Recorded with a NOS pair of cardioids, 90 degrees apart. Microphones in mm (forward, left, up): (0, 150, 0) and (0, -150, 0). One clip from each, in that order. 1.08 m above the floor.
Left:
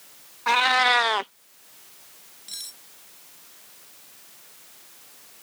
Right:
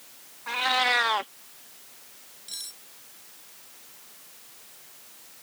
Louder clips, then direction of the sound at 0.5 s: Left 5 dB; 55° left.